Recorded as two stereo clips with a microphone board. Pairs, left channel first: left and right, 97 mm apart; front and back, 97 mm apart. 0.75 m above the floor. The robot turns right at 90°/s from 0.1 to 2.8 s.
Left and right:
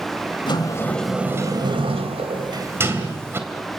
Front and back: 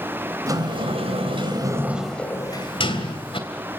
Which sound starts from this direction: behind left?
A sliding door, at 0.5 s.